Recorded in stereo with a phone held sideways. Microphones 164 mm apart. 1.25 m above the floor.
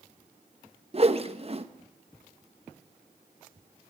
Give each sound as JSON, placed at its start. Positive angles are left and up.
{"t": 0.9, "sound": "a whoosh", "side_deg": -40, "distance_m": 1.2}